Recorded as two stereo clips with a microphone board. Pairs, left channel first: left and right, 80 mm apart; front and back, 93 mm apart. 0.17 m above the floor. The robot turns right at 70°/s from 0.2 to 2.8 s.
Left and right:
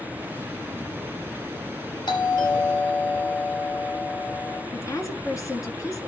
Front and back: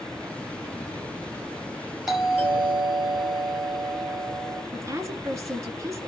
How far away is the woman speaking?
About 2 m.